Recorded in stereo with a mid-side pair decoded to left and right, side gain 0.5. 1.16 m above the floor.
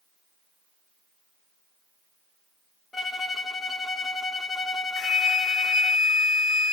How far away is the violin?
About 1.2 m.